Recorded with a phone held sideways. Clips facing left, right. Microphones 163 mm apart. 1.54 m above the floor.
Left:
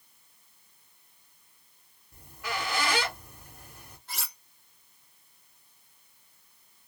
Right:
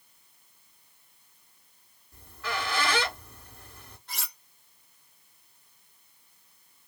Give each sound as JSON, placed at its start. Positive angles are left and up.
{"t": 2.1, "sound": "a squeak", "side_deg": 15, "distance_m": 2.0}
{"t": 4.1, "sound": "cutlery clinking", "side_deg": 5, "distance_m": 1.6}